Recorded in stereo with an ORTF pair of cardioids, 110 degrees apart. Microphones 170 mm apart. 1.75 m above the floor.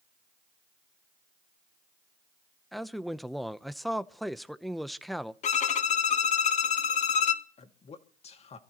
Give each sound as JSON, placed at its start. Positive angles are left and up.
{"t": 2.7, "sound": "a man speaking", "azimuth_deg": 0, "distance_m": 0.8}
{"t": 5.4, "sound": "a violin", "azimuth_deg": 45, "distance_m": 0.9}
{"t": 7.6, "sound": "a man speaking", "azimuth_deg": 40, "distance_m": 2.0}